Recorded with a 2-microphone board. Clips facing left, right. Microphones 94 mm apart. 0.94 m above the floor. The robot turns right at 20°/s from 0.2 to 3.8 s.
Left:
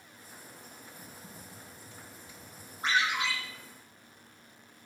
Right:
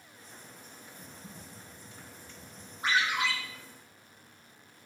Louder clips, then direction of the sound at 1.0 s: Right 1 dB; 10° left (ahead or behind).